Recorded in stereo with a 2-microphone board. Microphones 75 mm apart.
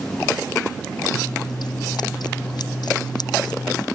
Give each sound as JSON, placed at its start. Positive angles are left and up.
{"t": 1.1, "sound": "scissors", "side_deg": 65}